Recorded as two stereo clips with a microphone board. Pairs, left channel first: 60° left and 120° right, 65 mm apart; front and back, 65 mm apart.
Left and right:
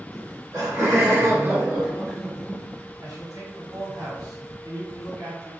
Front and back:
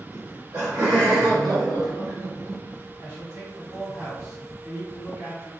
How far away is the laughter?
About 1.3 m.